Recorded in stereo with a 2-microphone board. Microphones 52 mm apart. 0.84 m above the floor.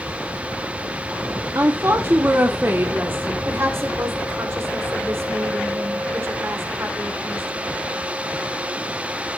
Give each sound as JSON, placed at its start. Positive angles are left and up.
{"t": 1.6, "sound": "a woman speaking", "side_deg": -60, "distance_m": 1.2}
{"t": 3.5, "sound": "a woman speaking", "side_deg": -50, "distance_m": 4.0}